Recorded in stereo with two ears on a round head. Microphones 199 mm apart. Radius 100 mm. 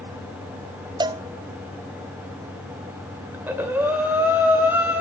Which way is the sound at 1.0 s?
20° right (ahead or behind).